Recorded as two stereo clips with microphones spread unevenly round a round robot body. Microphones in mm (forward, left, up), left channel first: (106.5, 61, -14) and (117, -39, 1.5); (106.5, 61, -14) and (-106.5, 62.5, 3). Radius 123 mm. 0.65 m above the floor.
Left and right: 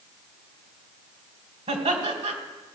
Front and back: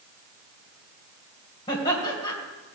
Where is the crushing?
No crushing in this recording.